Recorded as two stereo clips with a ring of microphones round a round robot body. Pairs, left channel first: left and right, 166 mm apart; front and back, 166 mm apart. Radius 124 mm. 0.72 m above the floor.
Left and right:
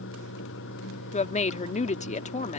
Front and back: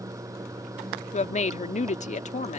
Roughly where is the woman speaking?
Ahead left.